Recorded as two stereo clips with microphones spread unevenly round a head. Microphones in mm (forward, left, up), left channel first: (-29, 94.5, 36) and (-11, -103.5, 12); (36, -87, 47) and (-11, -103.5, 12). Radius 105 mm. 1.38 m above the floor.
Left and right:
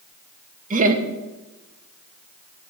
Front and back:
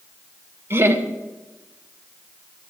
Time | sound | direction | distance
0.7 | laughter | 135° right | 2.5 m